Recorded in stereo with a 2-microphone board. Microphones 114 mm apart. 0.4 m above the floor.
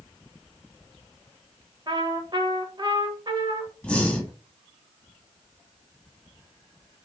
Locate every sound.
1.9 s a trumpet: 40° right (ahead or behind), 0.8 m
3.8 s breathing: 10° left (ahead or behind), 1.3 m